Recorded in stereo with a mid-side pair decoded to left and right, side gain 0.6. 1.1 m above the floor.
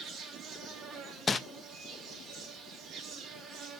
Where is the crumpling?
25° left, 0.5 m.